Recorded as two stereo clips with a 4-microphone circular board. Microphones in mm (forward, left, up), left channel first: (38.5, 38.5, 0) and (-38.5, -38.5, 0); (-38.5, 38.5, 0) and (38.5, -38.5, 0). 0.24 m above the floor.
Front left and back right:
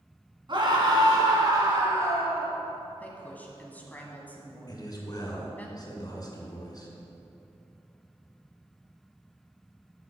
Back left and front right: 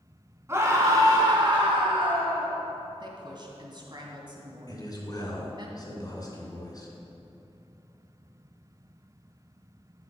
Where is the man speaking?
90° left, 2.5 m.